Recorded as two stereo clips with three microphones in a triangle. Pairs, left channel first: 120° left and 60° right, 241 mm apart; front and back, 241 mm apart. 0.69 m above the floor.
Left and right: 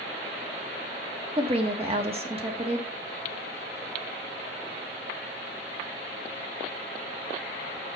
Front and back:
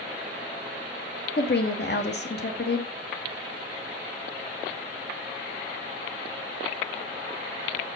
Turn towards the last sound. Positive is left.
turn(degrees=-5)